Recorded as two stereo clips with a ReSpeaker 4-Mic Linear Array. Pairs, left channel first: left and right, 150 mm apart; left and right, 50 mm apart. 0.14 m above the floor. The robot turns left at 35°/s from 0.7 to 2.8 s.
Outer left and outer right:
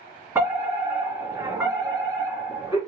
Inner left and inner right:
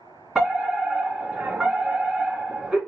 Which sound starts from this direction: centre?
A fire alarm, at 0.3 s.